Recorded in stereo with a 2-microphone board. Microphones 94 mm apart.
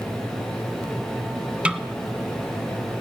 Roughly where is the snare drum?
Centre.